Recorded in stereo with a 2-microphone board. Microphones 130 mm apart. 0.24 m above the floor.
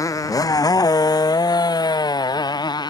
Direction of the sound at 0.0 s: 25° left (ahead or behind).